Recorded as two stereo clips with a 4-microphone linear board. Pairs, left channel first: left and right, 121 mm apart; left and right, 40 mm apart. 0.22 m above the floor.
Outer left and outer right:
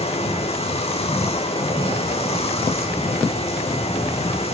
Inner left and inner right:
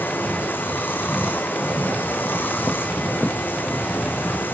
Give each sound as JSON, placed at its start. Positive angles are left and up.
{"t": 0.0, "sound": "running water", "side_deg": 55, "distance_m": 1.5}